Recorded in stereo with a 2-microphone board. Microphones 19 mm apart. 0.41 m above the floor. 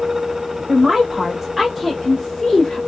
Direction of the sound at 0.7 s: 30° right (ahead or behind).